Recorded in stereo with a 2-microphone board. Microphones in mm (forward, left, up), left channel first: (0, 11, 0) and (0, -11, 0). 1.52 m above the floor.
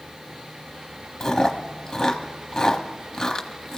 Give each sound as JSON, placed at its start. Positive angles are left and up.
{"t": 1.2, "sound": "chewing", "side_deg": 25, "distance_m": 1.0}